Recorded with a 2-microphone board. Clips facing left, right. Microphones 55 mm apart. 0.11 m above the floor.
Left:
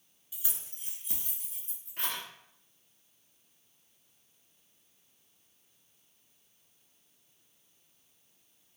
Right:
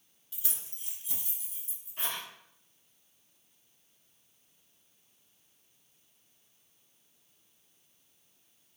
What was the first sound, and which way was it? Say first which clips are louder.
Keys jangling: even; 15° left (ahead or behind).